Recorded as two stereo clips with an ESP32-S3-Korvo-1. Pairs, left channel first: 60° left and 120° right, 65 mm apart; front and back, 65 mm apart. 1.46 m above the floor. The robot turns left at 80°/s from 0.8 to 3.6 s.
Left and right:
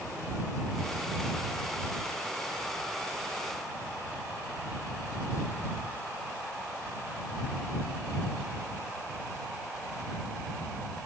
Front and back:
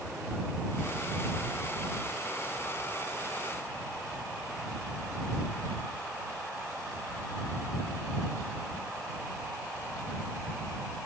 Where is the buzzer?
No buzzer in this recording.